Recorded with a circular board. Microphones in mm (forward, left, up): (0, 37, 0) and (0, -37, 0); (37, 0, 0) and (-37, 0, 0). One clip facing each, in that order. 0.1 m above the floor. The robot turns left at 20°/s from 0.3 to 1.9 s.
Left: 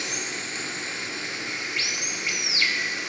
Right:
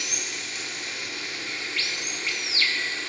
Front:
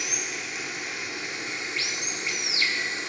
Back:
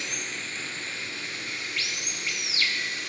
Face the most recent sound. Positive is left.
turn(degrees=35)